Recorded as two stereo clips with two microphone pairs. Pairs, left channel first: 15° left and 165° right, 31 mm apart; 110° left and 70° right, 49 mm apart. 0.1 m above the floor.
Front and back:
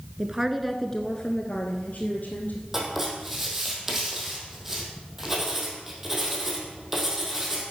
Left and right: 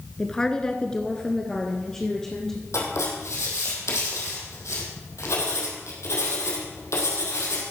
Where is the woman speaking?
175° left, 1.2 m; by 2.6 s 30° left, 2.5 m.